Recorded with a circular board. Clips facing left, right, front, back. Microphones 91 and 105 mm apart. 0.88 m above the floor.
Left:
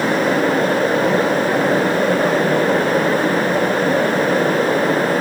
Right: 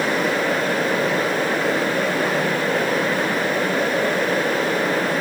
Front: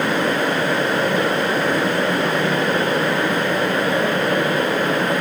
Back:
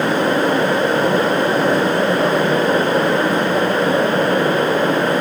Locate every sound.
Only background noise.